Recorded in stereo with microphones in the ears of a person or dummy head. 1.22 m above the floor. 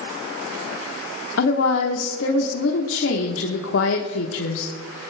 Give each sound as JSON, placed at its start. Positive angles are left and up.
{"t": 1.4, "sound": "a woman speaking", "side_deg": 80, "distance_m": 0.9}